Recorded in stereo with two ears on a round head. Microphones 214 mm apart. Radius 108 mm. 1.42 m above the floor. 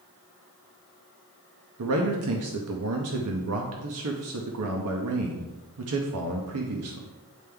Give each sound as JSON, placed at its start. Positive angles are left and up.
{"t": 1.8, "sound": "a man speaking", "side_deg": -65, "distance_m": 0.8}